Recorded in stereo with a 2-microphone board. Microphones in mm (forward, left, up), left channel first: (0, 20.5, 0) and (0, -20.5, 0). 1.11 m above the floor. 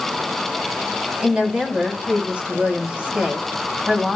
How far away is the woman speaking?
About 2.5 m.